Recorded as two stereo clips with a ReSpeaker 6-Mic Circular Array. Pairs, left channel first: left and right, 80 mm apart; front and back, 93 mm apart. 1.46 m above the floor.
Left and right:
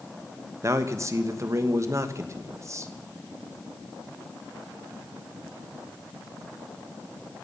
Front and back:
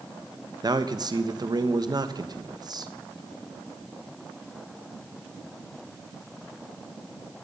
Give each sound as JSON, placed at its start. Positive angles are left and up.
{"t": 0.6, "sound": "a man speaking", "azimuth_deg": -140, "distance_m": 1.2}